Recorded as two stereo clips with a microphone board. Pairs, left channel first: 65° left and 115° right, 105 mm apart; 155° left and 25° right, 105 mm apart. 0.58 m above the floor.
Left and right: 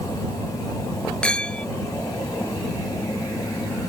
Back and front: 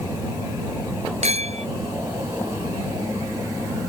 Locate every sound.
1.2 s a clink: 15° right